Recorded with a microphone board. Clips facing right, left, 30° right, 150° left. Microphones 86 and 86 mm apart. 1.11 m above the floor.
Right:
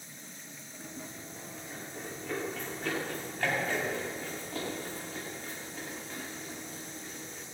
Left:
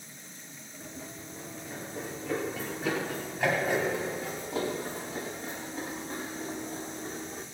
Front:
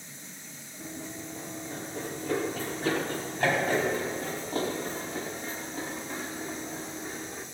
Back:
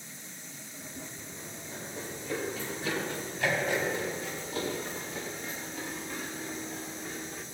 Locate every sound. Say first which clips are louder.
0.8 s running footsteps: left 1 dB, front 6 dB; 5° right, 6 m; by 7.5 s 35° left, 5.5 m